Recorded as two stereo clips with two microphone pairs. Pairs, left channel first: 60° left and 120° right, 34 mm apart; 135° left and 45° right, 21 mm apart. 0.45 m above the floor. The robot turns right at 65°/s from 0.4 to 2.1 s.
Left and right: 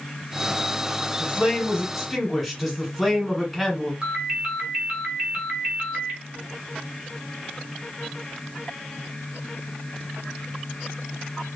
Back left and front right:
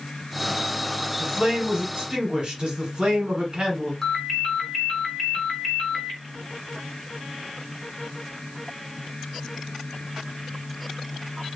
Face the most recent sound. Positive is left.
turn(degrees=-170)